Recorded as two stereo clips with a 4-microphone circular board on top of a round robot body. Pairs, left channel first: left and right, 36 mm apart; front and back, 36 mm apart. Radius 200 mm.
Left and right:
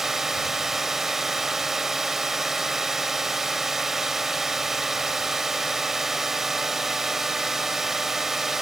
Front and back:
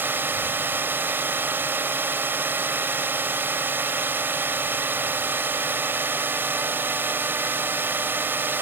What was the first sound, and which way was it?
A drone, 170° right.